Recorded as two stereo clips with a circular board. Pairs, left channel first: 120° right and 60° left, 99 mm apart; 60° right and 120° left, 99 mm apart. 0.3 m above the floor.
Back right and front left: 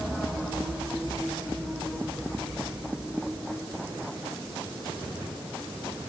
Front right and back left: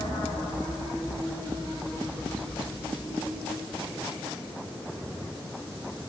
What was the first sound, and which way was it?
Only background noise.